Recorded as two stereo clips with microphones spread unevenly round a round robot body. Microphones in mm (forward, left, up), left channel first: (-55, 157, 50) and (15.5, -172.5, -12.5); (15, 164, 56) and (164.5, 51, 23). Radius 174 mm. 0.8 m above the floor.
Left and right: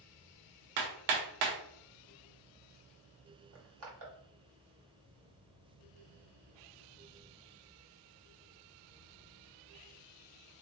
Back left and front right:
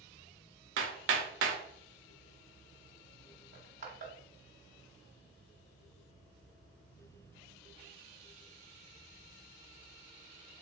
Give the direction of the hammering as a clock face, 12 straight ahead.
2 o'clock.